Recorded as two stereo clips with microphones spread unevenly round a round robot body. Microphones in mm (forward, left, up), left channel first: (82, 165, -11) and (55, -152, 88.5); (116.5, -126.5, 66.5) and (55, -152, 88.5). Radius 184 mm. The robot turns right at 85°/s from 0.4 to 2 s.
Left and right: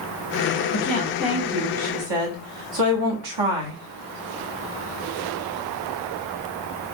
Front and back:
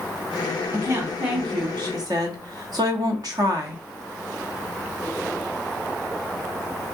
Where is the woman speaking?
125° left, 1.3 m; by 3.8 s 125° right, 1.3 m.